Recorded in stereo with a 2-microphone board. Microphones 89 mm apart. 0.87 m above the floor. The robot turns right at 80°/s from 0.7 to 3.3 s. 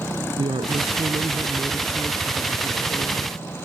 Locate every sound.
0.4 s a woman speaking: 105° right; by 3.4 s 105° left